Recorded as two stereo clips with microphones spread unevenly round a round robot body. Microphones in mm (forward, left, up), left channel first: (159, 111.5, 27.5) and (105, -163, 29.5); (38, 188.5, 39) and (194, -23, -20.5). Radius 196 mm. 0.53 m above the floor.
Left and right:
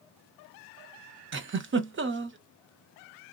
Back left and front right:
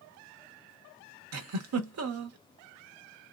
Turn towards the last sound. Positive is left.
turn(degrees=-50)